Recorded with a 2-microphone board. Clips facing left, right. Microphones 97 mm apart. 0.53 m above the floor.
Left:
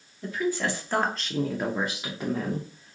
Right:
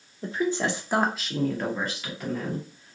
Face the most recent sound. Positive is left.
turn(degrees=35)  # may be behind; listen again after turning